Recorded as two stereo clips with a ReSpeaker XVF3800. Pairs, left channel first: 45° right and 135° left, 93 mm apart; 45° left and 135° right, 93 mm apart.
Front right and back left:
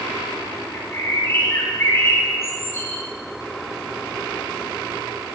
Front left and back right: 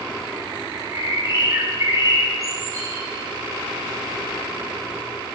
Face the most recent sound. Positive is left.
turn(degrees=-95)